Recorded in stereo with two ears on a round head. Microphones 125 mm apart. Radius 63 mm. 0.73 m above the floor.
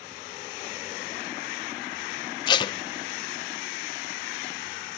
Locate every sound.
2.5 s tape being pulled: 30° left (ahead or behind), 0.9 m